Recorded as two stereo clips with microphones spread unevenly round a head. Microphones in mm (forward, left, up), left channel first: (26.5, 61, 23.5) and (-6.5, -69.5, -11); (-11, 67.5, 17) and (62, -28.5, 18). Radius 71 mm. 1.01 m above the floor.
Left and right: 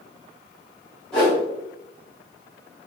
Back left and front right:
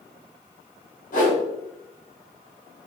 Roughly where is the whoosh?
Behind.